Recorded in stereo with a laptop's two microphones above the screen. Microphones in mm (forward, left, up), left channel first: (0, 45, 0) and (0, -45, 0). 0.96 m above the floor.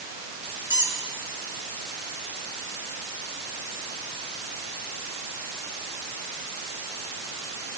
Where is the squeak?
30° right (ahead or behind), 3 m.